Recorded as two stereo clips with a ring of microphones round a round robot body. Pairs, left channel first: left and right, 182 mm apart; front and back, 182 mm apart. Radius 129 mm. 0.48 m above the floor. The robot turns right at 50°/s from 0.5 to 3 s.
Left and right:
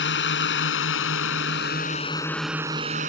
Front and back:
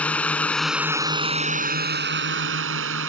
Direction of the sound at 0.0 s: 85° left.